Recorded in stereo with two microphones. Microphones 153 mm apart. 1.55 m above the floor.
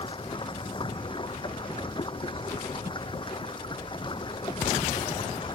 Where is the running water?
35° left (ahead or behind).